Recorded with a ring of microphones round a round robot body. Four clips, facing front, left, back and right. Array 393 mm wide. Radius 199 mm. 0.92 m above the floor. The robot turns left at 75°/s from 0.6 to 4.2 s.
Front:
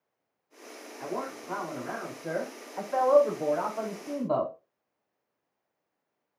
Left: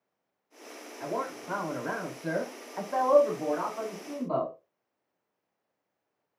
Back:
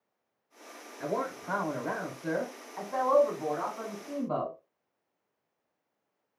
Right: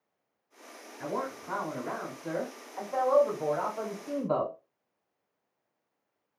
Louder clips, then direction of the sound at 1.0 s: Left 1 dB, back 2 dB; 140° right.